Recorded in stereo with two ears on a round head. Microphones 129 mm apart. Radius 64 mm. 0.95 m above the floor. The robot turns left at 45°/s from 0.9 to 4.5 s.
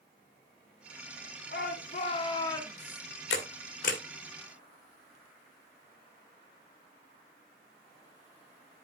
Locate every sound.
1.5 s a shout: 70° left, 2 m; by 3.0 s straight ahead, 2 m
3.3 s a camera shutter: 85° left, 1.6 m; by 4.0 s 55° left (ahead or behind), 1.6 m